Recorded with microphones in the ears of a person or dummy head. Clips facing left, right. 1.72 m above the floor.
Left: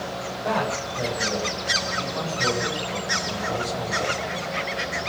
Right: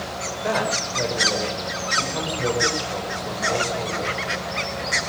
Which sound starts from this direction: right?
A man speaking, at 0.4 s.